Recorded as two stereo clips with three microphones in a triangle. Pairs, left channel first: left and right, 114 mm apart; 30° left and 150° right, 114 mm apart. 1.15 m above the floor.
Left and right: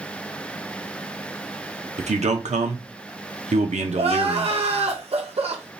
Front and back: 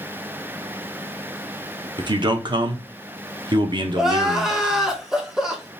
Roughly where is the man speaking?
Right.